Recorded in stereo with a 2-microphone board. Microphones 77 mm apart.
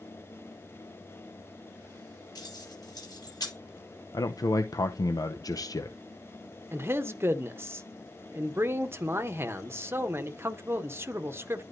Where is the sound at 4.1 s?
50° left (ahead or behind), 0.6 m.